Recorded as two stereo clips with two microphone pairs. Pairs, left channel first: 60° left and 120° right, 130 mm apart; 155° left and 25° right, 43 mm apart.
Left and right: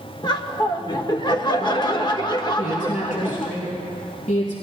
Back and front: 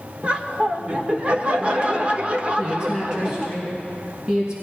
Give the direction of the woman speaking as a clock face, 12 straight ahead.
10 o'clock.